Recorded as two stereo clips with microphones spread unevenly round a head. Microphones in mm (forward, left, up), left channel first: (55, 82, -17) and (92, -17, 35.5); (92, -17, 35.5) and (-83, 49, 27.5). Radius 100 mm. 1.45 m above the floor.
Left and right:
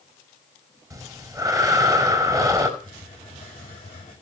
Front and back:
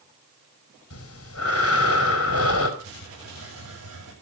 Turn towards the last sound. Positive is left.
turn(degrees=175)